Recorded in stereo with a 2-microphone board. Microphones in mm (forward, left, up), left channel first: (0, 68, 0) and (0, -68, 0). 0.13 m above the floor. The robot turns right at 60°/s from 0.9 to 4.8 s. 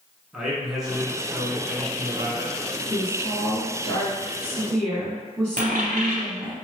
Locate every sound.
0.3 s a man speaking: 5° right (ahead or behind), 1.1 m; by 2.6 s 25° right (ahead or behind), 1.1 m
2.9 s a woman speaking: 15° left (ahead or behind), 1.2 m; by 6.6 s 10° left (ahead or behind), 1.2 m
5.6 s a dropped coin: 70° right (ahead or behind), 0.9 m